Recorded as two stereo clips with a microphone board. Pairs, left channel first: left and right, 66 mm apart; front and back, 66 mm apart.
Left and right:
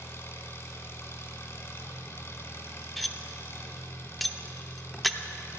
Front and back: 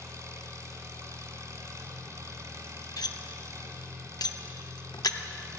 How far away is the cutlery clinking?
About 0.6 m.